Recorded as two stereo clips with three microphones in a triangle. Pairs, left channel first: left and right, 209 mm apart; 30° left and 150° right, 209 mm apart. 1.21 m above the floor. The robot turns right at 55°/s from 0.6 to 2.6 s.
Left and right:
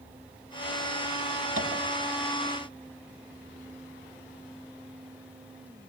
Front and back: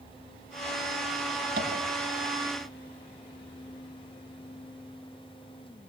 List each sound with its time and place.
1.6 s tapping: 110° right, 6 m; by 1.7 s 100° right, 6 m